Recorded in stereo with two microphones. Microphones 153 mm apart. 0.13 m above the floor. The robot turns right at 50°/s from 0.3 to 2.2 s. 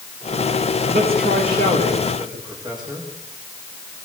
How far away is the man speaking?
About 8.5 m.